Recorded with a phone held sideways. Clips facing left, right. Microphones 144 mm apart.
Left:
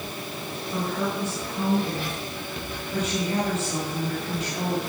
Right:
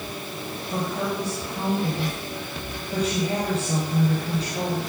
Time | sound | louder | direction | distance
0.7 | a woman speaking | even | 35° right (ahead or behind) | 6.5 m